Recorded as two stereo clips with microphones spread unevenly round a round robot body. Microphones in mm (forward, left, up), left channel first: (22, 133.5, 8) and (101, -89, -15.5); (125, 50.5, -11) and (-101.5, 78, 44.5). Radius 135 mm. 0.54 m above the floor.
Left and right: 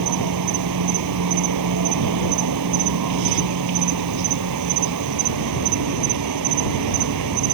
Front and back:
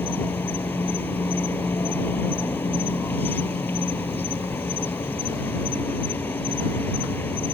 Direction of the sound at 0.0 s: 90° right.